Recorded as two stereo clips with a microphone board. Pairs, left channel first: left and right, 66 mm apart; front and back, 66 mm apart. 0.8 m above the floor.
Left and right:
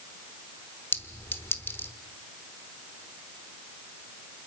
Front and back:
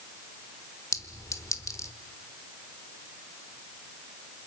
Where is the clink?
35° left, 1.2 m.